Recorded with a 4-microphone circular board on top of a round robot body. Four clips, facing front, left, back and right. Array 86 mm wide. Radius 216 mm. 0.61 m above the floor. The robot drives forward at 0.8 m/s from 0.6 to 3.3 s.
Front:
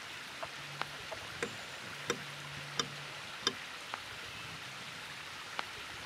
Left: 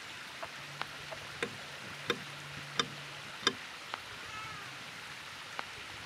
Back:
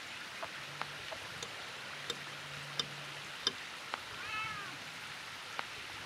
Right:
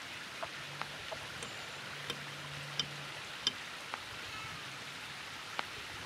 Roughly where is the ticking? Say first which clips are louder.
Left 4 dB, front 4 dB; ahead left.